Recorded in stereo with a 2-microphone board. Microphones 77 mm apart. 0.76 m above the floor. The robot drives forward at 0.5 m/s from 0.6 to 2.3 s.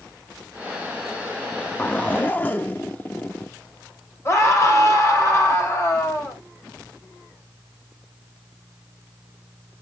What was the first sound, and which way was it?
A zipper, 20° left (ahead or behind).